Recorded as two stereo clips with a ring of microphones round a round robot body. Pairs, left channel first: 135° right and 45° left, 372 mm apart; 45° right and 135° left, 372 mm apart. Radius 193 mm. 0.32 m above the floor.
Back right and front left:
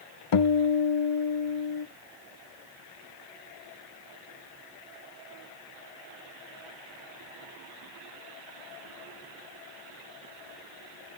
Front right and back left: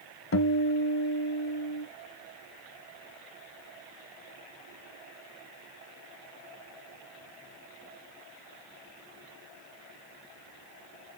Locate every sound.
0.3 s a guitar: 100° right, 0.8 m